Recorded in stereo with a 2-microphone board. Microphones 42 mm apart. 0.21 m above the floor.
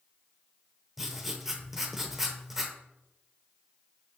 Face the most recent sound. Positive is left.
turn(degrees=-10)  # may be behind; listen again after turning